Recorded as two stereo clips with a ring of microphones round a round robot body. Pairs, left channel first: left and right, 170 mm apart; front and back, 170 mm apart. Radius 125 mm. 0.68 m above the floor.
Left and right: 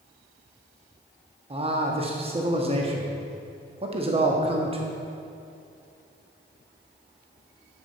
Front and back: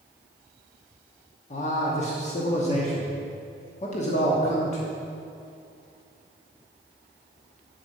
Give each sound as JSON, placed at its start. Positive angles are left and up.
{"t": 1.5, "sound": "a man speaking", "azimuth_deg": -40, "distance_m": 1.0}